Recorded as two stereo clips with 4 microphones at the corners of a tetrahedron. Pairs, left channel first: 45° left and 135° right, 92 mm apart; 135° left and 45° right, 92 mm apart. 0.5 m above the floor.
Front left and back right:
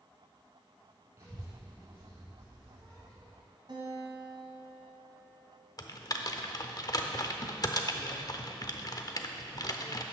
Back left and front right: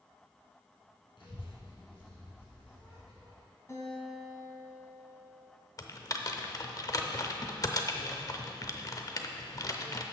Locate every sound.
1.2 s a child speaking: 165° left, 3 m; by 3.4 s 150° left, 5 m
3.7 s a guitar: 165° right, 2.5 m
5.8 s typing on a keyboard: 90° left, 0.6 m